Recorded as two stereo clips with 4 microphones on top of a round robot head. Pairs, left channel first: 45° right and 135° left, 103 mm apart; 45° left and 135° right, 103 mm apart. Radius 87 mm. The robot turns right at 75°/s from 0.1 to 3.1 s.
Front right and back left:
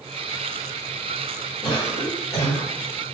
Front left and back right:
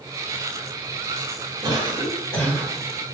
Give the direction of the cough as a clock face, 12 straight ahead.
3 o'clock.